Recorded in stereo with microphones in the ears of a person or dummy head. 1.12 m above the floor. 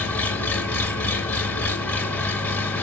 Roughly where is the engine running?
Centre.